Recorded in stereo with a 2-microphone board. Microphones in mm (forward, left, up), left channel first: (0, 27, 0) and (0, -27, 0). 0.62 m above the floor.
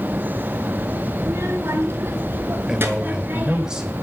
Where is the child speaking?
60° right (ahead or behind), 5 m; by 3.7 s 35° right (ahead or behind), 5 m.